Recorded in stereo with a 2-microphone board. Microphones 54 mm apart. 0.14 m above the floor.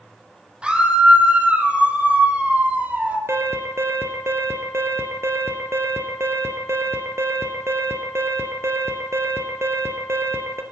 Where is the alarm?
55° right (ahead or behind), 3 m.